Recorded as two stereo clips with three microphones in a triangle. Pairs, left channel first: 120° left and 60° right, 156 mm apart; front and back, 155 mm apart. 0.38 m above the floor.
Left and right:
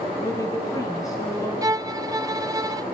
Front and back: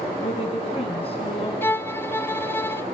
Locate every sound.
0.2 s a woman speaking: 50° left, 5 m
1.6 s a violin: 50° right, 0.7 m